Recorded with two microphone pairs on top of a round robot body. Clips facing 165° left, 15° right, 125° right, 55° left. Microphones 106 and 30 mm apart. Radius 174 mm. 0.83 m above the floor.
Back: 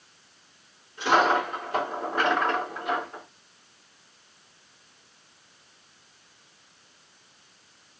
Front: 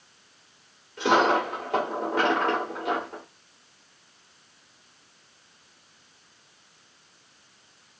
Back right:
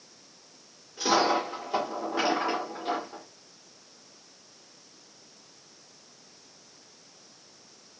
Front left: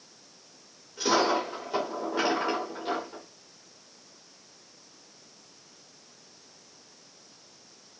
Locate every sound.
1.0 s a dropped coin: 40° right, 0.6 m